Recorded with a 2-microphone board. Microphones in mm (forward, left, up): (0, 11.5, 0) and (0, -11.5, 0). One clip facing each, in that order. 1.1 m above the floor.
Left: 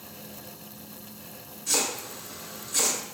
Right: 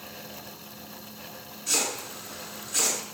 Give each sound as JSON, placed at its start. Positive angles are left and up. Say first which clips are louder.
{"t": 1.7, "sound": "chopping", "louder": "even", "side_deg": -15, "distance_m": 1.5}